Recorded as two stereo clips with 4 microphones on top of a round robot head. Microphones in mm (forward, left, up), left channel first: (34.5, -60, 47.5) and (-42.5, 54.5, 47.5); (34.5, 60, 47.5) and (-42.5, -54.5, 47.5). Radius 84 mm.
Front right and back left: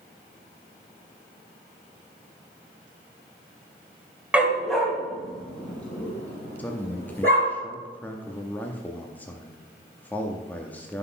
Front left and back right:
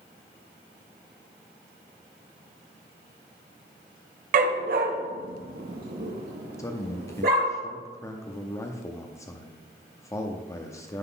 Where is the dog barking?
155° right, 1.1 m; by 7.5 s 135° right, 3.5 m.